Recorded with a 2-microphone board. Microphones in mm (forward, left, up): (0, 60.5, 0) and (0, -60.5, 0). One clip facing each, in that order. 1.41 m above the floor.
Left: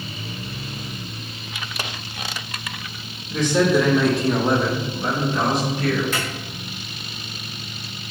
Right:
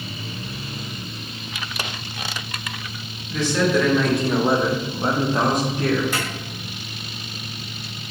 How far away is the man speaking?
About 1.0 m.